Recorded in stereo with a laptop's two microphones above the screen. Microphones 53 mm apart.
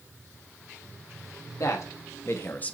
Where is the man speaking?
55° left (ahead or behind), 0.9 m; by 2.7 s 20° left (ahead or behind), 0.5 m.